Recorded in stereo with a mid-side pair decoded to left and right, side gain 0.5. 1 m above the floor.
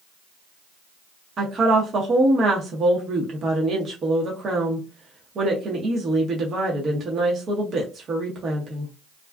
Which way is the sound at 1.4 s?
45° right.